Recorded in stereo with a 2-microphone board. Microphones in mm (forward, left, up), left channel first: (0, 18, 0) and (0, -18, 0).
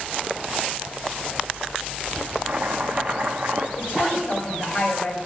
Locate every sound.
2.5 s chopping: 40° right (ahead or behind), 0.7 m
3.8 s a woman speaking: 35° left (ahead or behind), 3 m